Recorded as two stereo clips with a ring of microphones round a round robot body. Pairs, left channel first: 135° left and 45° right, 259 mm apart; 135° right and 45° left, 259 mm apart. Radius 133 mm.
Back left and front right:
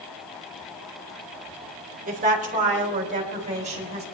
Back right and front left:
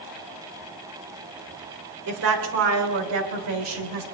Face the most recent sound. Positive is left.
turn(degrees=20)